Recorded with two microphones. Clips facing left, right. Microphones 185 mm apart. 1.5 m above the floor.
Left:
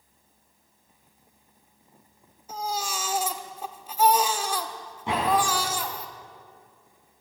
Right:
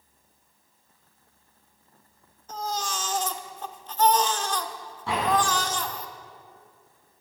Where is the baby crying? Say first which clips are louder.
Even; 10° left (ahead or behind), 1.3 m.